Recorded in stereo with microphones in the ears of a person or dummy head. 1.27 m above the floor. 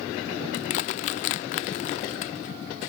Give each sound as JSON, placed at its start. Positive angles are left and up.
{"t": 0.5, "sound": "crushing", "side_deg": 35}